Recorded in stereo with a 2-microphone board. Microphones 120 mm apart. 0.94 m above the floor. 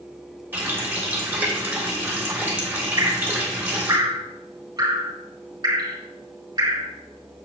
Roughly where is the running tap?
Centre.